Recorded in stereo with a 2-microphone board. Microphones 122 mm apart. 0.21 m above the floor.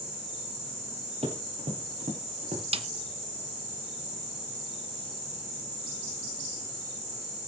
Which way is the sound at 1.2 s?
65° right (ahead or behind).